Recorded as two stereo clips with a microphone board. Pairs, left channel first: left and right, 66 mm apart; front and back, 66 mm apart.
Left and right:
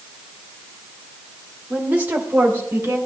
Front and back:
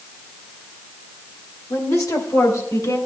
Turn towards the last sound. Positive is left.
turn(degrees=-35)